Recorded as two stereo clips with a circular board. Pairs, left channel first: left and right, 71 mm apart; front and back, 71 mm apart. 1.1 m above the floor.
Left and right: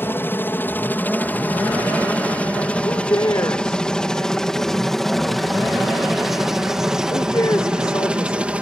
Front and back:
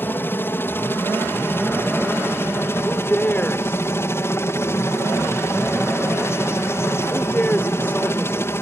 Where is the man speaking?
65° left.